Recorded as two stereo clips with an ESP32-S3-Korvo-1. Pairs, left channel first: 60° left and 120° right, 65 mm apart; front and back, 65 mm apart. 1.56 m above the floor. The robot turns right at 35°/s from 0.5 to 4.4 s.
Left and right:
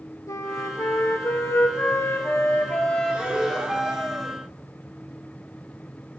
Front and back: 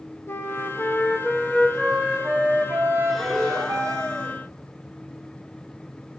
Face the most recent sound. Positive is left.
turn(degrees=-35)